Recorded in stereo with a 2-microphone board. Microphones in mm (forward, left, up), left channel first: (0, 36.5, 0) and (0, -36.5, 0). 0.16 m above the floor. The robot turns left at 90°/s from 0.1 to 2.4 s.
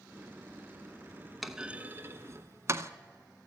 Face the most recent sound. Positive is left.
turn(degrees=-45)  # may be behind; listen again after turning